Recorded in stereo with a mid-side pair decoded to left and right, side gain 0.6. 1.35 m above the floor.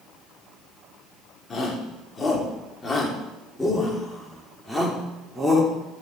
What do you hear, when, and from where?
1.5 s a shout: 35° left, 5 m; by 5.7 s straight ahead, 5 m